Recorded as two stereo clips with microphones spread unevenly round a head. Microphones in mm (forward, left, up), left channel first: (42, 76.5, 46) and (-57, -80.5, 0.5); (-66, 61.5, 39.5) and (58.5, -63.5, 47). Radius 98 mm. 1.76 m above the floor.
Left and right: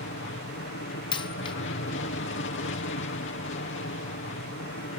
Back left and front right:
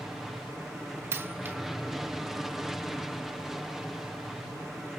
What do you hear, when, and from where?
0.0 s an aircraft: 45° left
1.1 s a dropped coin: 25° left